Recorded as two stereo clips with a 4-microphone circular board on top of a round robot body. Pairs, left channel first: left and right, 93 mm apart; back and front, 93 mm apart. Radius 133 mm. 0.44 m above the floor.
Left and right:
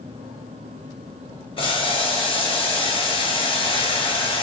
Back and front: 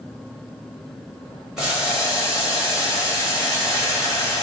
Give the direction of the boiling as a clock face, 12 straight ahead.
9 o'clock.